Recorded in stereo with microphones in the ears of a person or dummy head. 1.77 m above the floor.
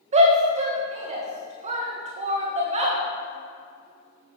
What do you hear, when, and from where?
0.1 s a shout: 35° right (ahead or behind), 1.7 m